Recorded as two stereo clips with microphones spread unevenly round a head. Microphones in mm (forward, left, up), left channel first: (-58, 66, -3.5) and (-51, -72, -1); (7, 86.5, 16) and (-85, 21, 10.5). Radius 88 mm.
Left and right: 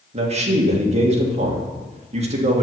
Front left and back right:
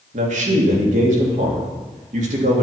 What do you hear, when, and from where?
0.1 s a man speaking: 125° right, 1.9 m